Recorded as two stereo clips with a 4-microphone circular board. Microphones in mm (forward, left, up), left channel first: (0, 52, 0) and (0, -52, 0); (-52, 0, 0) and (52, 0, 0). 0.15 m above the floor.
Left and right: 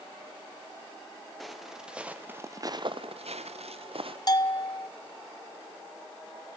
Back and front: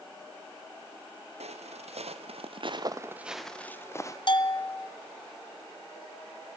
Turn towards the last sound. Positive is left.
turn(degrees=140)